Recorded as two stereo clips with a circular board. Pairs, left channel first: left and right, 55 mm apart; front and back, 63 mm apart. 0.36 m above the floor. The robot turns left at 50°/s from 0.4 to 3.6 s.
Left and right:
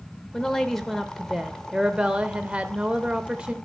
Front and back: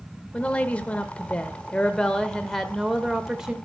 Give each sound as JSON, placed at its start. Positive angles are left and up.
{"t": 0.3, "sound": "a woman speaking", "azimuth_deg": 35, "distance_m": 0.8}